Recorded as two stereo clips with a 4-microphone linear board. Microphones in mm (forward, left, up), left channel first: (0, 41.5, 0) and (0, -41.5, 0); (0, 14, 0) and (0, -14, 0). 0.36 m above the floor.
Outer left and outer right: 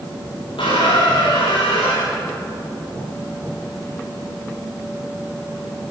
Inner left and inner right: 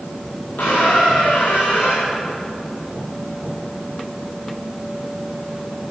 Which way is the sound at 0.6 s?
85° left.